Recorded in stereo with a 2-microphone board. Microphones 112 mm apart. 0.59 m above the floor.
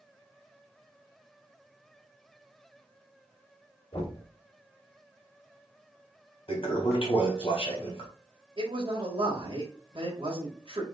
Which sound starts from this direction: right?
A man speaking, at 8.6 s.